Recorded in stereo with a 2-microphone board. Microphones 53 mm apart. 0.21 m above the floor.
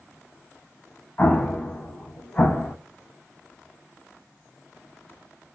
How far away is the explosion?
About 0.5 m.